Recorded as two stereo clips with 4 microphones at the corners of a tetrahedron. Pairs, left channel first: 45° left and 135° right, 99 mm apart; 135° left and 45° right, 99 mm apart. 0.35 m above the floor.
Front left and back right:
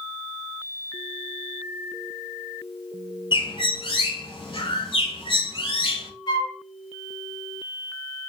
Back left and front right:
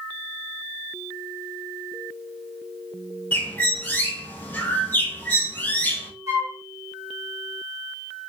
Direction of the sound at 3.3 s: 65° left.